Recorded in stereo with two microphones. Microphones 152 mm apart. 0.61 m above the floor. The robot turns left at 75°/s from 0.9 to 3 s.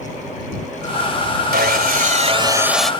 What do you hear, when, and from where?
1.5 s sawing: 80° right; by 2.9 s 175° left